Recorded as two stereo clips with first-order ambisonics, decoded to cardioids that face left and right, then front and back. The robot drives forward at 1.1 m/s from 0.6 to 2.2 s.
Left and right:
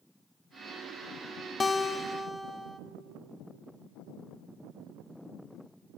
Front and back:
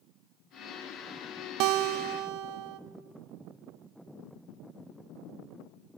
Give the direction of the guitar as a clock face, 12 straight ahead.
7 o'clock.